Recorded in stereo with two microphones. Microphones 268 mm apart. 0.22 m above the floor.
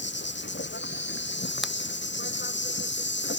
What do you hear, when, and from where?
0.0 s an insect: 40° left (ahead or behind)
1.6 s a finger snap: centre (ahead or behind)